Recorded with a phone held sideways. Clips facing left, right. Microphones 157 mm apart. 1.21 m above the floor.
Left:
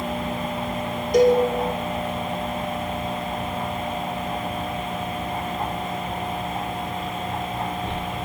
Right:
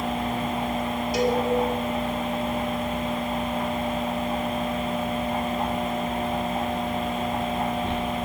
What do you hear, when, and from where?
1.1 s a cowbell: 50° left (ahead or behind), 5 m